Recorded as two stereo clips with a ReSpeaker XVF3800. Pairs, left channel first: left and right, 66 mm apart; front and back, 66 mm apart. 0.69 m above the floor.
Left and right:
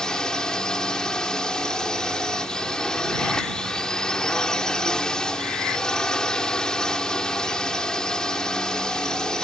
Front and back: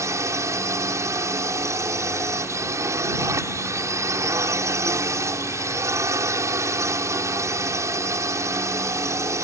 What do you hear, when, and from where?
0.0 s a drone: 165° left